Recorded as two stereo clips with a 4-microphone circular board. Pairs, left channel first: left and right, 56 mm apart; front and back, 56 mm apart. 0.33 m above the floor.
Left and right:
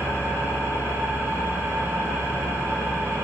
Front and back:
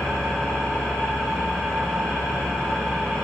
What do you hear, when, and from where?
0.0 s an engine running: 65° right, 5 m